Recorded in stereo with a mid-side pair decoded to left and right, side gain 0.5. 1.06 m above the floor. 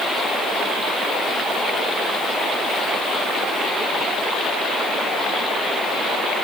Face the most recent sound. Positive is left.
No sound to turn to.